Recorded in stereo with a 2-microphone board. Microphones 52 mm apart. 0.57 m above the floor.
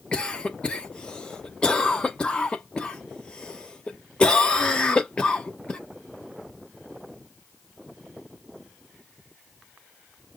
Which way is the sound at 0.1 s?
20° left (ahead or behind).